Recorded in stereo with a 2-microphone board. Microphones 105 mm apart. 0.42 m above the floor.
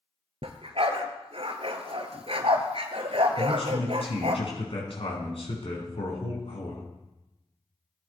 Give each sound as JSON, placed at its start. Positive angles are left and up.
{"t": 0.4, "sound": "a dog barking", "side_deg": -65, "distance_m": 1.6}
{"t": 3.4, "sound": "a man speaking", "side_deg": 65, "distance_m": 5.0}